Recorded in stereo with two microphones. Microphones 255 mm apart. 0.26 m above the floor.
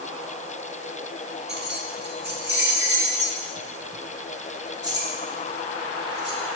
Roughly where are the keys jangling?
Right.